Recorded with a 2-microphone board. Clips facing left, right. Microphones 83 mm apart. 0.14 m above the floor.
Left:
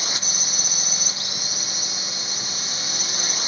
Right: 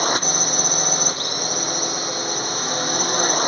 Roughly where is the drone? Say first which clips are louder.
Right 11 dB; right.